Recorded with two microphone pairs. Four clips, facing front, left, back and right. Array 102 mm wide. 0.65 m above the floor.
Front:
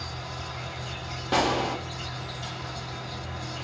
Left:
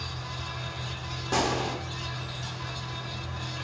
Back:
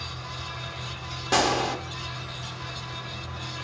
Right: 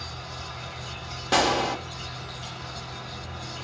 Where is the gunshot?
120° right, 0.9 m.